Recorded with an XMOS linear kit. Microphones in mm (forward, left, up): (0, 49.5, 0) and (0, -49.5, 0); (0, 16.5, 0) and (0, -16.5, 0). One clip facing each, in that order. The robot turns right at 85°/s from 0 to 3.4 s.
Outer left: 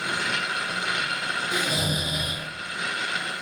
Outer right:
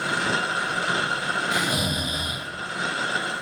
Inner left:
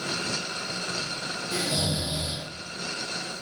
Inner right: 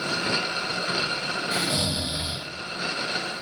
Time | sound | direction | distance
1.5 | snoring | 95° right | 0.8 m